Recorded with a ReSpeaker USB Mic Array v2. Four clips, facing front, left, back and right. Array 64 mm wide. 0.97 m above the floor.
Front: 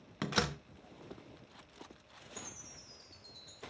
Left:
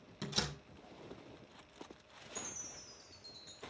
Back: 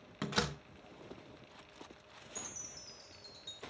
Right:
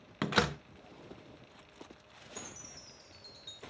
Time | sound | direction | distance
0.2 | a door slam | 80° right | 0.5 m
2.4 | a chime | 105° right | 2 m